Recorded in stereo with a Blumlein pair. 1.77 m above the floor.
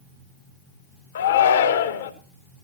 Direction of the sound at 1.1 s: 60° left.